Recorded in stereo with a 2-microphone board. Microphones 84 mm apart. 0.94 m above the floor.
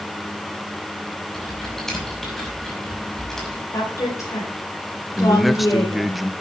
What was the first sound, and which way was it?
Typing on a keyboard, 5° left (ahead or behind).